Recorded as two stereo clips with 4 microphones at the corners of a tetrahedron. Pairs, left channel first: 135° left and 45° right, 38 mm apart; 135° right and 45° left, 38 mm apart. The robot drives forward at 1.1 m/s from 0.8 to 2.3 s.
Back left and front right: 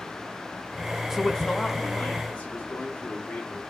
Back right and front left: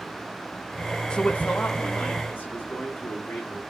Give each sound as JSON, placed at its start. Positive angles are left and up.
{"t": 1.1, "sound": "a man speaking", "azimuth_deg": -110, "distance_m": 0.5}